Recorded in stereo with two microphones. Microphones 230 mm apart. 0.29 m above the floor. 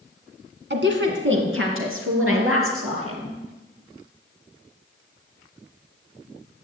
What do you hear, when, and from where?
0.7 s a woman speaking: 55° right (ahead or behind), 2.5 m; by 3.3 s 70° right (ahead or behind), 5 m